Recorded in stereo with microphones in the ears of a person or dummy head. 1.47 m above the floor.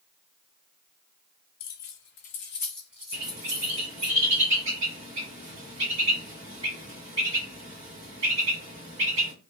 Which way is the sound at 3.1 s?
30° right (ahead or behind).